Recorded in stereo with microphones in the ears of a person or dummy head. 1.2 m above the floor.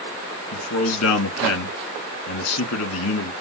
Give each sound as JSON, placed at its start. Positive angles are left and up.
{"t": 0.5, "sound": "a man speaking", "side_deg": 80, "distance_m": 1.8}